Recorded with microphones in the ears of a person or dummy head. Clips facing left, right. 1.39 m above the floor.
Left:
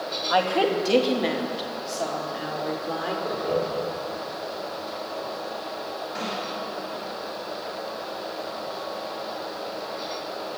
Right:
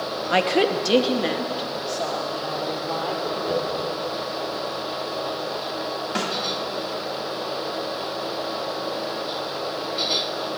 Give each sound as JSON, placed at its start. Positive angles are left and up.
{"t": 0.3, "sound": "a woman speaking", "side_deg": -30, "distance_m": 1.7}
{"t": 3.2, "sound": "laughter", "side_deg": -10, "distance_m": 3.5}
{"t": 6.2, "sound": "a snare drum", "side_deg": -70, "distance_m": 3.0}